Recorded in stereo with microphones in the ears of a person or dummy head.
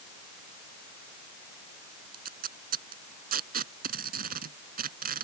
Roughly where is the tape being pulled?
Right.